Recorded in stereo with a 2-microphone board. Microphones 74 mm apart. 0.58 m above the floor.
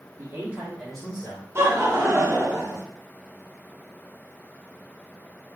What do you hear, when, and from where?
0.2 s a man speaking: 40° right (ahead or behind), 1.1 m; by 1.4 s 25° left (ahead or behind), 1.8 m
1.6 s laughter: 35° right (ahead or behind), 0.9 m